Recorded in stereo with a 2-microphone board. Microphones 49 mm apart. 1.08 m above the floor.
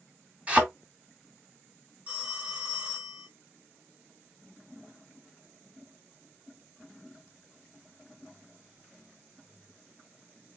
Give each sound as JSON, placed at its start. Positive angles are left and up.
{"t": 0.5, "sound": "a thud", "side_deg": -25, "distance_m": 1.9}
{"t": 2.1, "sound": "a phone ringing", "side_deg": -20, "distance_m": 1.6}